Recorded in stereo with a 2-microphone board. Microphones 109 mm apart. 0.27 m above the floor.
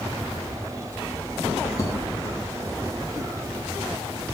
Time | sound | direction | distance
1.8 | a thud | 30° left (ahead or behind) | 5 m